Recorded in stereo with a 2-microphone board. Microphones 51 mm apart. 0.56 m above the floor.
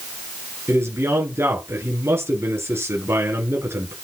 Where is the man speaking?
55° right (ahead or behind), 8.5 m.